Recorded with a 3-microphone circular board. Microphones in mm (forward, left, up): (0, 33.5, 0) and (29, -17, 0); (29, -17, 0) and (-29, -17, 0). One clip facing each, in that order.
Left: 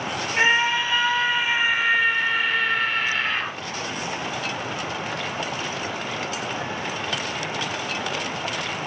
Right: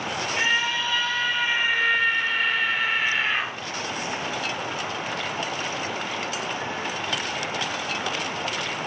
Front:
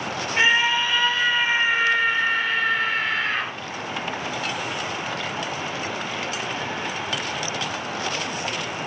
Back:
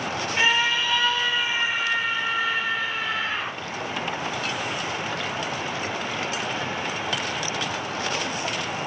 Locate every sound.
0.4 s a scream: 60° left, 3.5 m; by 3.5 s 20° left, 4 m